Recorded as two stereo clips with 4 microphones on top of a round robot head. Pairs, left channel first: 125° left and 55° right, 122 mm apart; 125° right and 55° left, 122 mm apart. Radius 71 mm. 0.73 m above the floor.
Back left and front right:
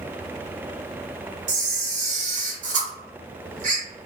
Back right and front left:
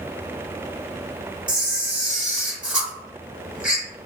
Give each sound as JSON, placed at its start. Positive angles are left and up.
{"t": 1.5, "sound": "a camera shutter", "azimuth_deg": -25, "distance_m": 1.0}